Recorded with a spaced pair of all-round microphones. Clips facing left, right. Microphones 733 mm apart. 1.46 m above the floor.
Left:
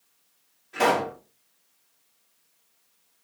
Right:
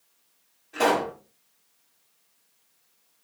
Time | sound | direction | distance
0.7 | a pop | 35° left (ahead or behind) | 2 m